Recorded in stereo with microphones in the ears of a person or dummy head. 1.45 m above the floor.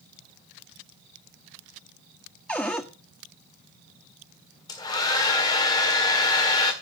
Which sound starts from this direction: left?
A hair dryer, at 4.7 s.